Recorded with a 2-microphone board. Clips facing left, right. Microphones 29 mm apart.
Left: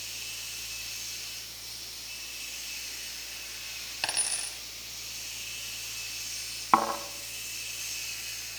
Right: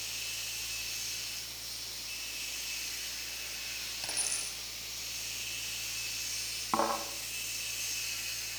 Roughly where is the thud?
Left.